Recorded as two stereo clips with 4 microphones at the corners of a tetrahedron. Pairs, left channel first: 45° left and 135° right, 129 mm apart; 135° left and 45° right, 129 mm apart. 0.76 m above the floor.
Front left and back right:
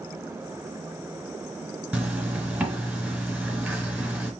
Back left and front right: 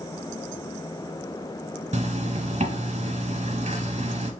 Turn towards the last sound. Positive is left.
turn(degrees=-60)